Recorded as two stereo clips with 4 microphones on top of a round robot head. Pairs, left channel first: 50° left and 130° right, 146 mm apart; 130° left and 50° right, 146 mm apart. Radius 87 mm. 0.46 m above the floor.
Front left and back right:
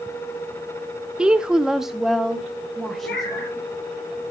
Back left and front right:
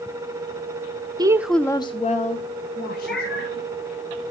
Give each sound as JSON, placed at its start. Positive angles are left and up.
{"t": 1.2, "sound": "a woman speaking", "azimuth_deg": -55, "distance_m": 0.8}
{"t": 3.0, "sound": "a cat meowing", "azimuth_deg": 50, "distance_m": 6.5}